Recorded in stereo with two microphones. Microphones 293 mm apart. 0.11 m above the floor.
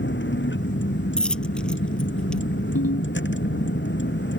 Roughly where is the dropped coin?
Centre.